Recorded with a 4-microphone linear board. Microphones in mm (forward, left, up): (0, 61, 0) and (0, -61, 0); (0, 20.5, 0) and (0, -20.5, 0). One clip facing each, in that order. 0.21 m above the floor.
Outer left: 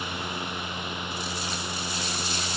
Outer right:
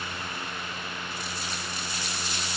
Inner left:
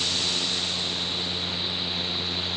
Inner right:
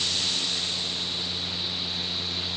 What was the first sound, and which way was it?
Only background noise.